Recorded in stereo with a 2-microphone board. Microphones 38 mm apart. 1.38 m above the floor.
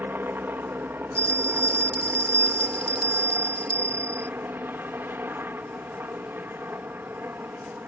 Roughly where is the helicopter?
Right.